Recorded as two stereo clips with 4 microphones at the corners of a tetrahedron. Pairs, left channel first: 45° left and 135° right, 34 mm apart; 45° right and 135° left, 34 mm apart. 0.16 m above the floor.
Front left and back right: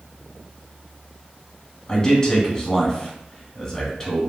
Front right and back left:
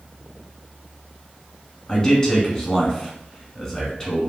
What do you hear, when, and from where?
1.9 s a man speaking: straight ahead, 1.1 m